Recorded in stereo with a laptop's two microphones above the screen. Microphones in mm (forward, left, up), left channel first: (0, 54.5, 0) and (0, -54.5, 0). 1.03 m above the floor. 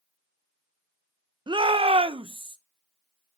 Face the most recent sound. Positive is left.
turn(degrees=-45)  # may be behind; listen again after turning